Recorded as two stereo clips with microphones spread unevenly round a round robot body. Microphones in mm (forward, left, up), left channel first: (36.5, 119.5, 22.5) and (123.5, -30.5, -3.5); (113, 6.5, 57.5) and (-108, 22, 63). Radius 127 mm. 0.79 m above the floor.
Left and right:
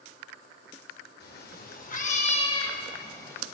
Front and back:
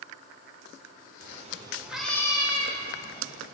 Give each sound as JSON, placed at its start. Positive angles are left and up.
{"t": 1.2, "sound": "a cat meowing", "azimuth_deg": 130, "distance_m": 0.8}